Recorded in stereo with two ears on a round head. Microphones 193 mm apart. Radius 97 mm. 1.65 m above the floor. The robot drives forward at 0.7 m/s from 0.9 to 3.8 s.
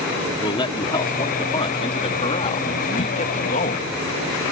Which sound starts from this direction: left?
A man speaking, at 0.4 s.